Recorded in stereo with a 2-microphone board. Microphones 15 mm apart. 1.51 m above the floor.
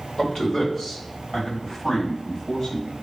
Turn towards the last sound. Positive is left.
turn(degrees=50)  # may be behind; listen again after turning